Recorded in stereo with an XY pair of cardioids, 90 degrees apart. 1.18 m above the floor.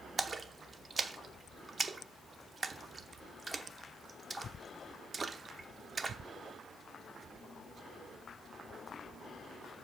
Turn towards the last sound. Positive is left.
turn(degrees=-35)